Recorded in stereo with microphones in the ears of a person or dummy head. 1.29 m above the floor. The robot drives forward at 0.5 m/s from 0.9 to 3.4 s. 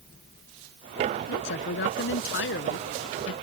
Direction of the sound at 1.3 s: 60° left (ahead or behind).